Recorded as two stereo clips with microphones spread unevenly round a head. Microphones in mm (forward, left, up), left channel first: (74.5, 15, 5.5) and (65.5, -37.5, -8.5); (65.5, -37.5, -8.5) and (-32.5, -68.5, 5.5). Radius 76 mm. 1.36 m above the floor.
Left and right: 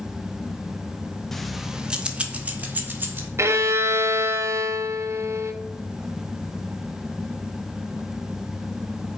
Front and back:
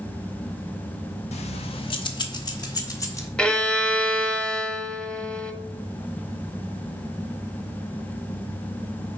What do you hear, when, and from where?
1.3 s keys jangling: 5° left, 0.9 m; by 3.3 s 45° right, 2 m
3.4 s a violin: 70° right, 0.9 m